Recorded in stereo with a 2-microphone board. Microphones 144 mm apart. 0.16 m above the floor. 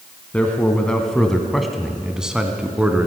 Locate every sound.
0.3 s a man speaking: 10° left (ahead or behind), 1.3 m; by 3.1 s 10° right (ahead or behind), 1.6 m